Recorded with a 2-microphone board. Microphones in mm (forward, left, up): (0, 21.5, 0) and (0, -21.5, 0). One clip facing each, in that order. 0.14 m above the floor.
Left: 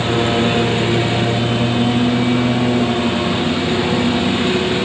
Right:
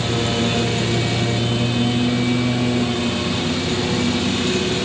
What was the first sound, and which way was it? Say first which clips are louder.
A lawn mower: left 5 dB; 20° left (ahead or behind).